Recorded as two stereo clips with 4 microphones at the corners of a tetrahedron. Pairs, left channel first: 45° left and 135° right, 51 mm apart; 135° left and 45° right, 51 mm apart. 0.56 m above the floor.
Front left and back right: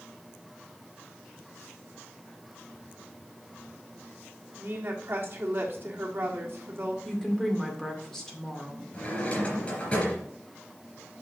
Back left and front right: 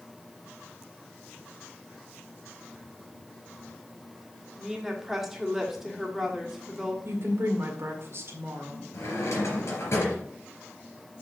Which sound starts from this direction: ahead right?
A woman speaking, at 7.0 s.